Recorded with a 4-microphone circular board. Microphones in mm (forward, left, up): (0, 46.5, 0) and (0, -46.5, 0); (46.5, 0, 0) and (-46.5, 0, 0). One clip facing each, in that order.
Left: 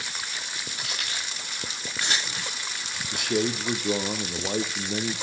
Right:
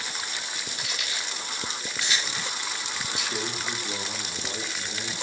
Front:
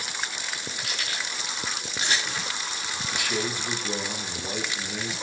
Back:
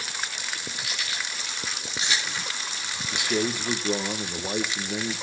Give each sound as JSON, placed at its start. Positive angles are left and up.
{"t": 0.8, "sound": "keys jangling", "azimuth_deg": 50, "distance_m": 10.0}
{"t": 3.1, "sound": "a man speaking", "azimuth_deg": 115, "distance_m": 2.5}